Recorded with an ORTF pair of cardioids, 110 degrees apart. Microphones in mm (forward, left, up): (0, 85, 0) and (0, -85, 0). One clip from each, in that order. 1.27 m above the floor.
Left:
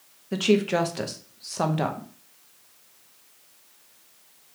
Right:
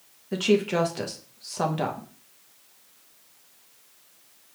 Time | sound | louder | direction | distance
0.3 | a woman speaking | left 1 dB | 5° left | 0.7 m